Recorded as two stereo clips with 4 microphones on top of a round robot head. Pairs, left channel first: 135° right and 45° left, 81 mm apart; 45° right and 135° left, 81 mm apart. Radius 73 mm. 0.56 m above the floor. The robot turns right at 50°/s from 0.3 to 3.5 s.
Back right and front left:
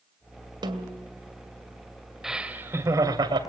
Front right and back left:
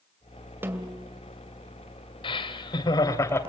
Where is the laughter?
45° right, 3 m; by 3.4 s 15° left, 3 m.